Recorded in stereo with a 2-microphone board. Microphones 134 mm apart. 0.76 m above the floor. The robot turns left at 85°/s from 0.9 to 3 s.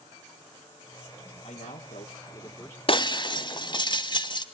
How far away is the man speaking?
About 2.0 m.